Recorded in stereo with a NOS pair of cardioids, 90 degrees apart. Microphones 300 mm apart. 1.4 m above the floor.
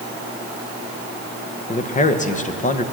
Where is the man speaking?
25° left, 1.3 m.